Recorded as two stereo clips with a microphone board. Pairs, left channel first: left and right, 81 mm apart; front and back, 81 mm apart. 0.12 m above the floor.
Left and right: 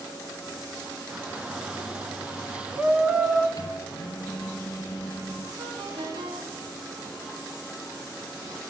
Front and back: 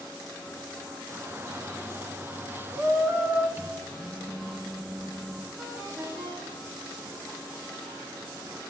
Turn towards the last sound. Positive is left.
turn(degrees=-120)